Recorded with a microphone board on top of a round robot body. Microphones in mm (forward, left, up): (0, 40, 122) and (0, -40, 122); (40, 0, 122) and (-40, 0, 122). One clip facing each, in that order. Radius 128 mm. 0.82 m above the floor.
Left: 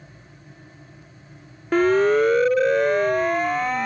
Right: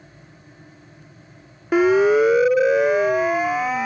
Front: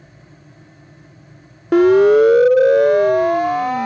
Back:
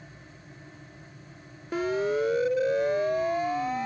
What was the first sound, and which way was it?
A siren, 10° right.